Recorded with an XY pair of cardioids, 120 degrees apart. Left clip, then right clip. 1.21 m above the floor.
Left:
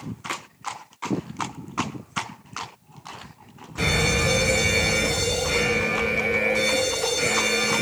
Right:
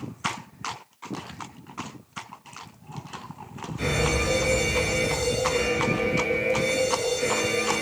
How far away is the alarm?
About 3 m.